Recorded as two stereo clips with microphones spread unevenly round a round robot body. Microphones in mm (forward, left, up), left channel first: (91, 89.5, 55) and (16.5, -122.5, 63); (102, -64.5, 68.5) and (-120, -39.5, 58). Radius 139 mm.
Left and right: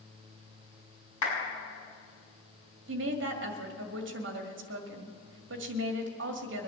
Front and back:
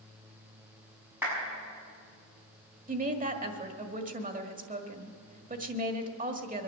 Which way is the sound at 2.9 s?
140° right.